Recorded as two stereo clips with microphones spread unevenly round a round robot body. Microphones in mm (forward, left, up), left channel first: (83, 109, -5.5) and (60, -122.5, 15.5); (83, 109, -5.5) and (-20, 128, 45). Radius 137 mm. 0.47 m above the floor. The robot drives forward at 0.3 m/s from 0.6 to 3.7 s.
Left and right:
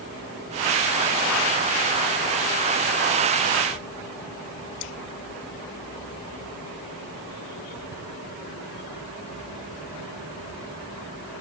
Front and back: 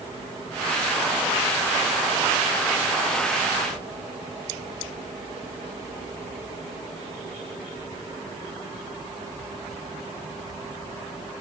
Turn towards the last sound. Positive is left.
No sound to turn to.